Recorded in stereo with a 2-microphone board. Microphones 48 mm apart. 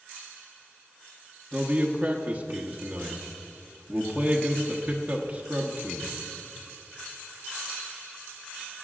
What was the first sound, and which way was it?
A man speaking, 30° right (ahead or behind).